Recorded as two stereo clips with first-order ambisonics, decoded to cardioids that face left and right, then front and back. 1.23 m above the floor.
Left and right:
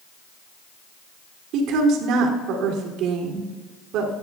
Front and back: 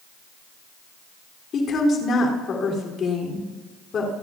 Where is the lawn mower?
No lawn mower in this recording.